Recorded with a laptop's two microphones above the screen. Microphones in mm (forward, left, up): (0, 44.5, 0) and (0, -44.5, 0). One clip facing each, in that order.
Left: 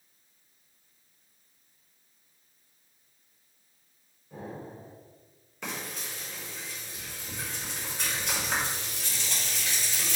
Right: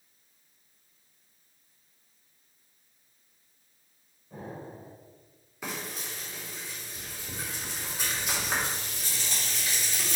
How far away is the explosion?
About 4.5 m.